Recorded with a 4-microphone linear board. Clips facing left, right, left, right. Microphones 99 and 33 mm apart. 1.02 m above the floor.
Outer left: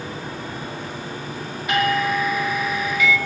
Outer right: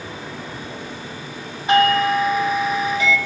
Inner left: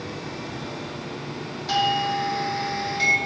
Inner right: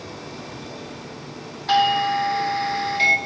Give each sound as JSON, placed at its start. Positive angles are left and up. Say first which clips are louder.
{"t": 1.7, "sound": "a doorbell", "louder": "outer right 5 dB, inner right 4 dB", "side_deg": -30, "distance_m": 1.7}